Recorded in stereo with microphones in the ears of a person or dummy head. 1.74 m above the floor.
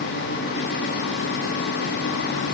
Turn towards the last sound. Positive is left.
No sound to turn to.